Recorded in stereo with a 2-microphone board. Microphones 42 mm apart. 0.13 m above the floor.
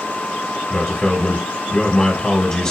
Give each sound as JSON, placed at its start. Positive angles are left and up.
{"t": 0.7, "sound": "a man speaking", "side_deg": 15, "distance_m": 1.9}